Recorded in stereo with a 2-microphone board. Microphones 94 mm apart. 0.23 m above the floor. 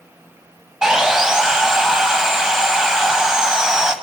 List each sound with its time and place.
0.8 s sawing: 5° right (ahead or behind), 1.3 m